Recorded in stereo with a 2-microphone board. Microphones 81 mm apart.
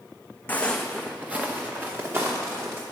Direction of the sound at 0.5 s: 20° left (ahead or behind).